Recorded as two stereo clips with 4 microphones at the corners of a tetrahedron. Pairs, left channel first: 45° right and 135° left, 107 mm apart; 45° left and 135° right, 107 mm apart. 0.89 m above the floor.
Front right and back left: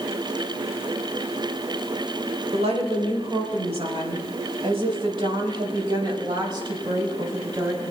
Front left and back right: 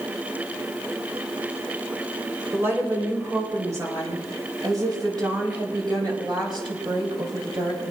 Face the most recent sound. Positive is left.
turn(degrees=-175)